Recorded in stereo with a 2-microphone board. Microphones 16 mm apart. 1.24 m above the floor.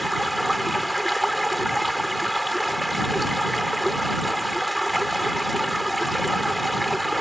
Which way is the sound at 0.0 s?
5° left (ahead or behind).